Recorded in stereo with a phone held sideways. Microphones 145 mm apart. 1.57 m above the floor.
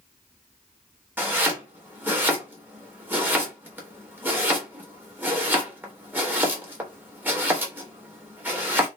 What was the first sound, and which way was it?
Chopping, 10° right (ahead or behind).